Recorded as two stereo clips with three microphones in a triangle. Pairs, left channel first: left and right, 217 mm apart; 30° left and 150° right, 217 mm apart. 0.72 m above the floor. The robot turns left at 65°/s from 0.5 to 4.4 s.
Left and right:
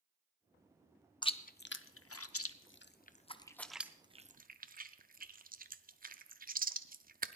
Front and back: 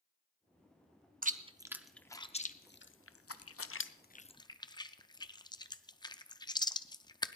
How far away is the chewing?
About 0.5 m.